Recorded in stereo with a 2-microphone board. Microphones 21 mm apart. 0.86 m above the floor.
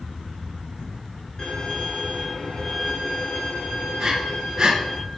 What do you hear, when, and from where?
1.4 s a violin: 30° left (ahead or behind), 6 m
4.0 s breathing: 35° right (ahead or behind), 1.8 m